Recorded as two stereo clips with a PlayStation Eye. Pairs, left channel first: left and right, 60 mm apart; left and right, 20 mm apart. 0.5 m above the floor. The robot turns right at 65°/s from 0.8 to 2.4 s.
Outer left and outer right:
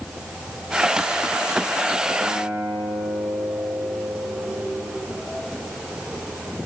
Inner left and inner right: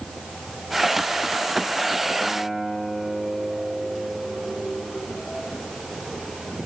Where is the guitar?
55° right (ahead or behind), 7 m; by 5.0 s 45° right (ahead or behind), 7 m.